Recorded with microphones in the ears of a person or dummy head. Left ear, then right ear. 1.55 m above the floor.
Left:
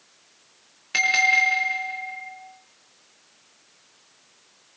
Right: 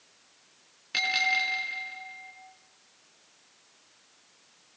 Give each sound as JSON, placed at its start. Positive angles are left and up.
{"t": 0.9, "sound": "a bell", "side_deg": 5, "distance_m": 7.5}